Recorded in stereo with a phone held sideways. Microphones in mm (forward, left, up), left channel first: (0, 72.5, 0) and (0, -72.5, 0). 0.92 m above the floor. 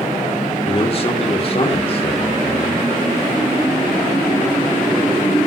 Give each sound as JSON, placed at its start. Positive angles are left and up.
{"t": 0.7, "sound": "a man speaking", "side_deg": 40, "distance_m": 2.5}